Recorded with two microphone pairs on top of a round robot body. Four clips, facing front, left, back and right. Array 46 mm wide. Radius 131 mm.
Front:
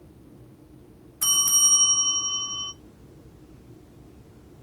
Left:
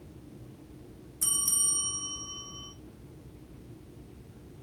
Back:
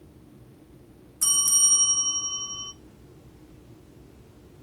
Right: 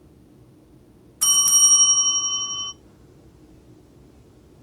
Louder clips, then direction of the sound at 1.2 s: Right 16 dB, front 3 dB; 60° right.